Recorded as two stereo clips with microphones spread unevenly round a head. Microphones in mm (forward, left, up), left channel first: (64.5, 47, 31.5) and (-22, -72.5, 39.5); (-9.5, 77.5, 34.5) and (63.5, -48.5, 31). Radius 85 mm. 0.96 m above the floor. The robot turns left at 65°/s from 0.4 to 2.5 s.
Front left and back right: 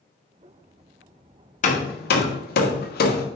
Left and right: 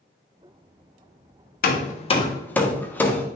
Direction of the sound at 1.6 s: 100° left.